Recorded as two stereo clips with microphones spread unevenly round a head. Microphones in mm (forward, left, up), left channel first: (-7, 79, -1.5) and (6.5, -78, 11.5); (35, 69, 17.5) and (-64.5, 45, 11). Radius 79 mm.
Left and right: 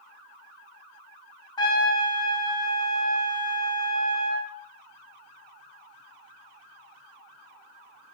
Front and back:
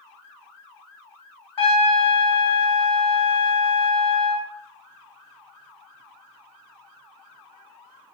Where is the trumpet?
35° left, 0.9 m.